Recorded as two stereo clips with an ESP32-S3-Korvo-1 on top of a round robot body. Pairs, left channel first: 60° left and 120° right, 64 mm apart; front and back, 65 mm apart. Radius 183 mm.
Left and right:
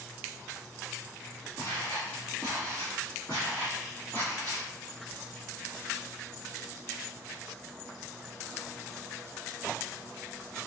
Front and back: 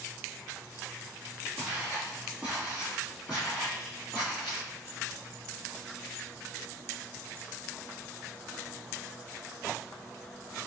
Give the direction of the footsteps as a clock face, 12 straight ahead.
10 o'clock.